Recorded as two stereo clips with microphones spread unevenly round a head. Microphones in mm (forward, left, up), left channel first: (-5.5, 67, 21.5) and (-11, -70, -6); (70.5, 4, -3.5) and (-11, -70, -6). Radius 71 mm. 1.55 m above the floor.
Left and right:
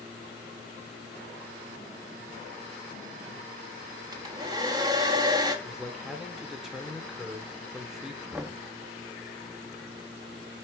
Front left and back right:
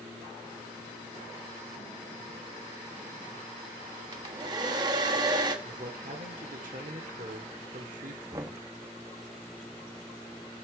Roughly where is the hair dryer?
Behind right.